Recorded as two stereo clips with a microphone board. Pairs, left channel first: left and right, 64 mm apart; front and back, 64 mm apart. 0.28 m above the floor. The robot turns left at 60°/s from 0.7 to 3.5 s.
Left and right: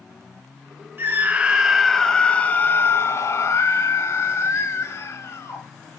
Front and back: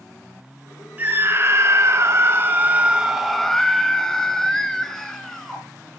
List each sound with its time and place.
1.0 s a scream: 130° right, 1.2 m; by 5.6 s 80° left, 1.2 m